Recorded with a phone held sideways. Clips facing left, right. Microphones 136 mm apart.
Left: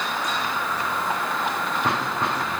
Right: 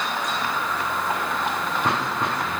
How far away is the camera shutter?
No camera shutter in this recording.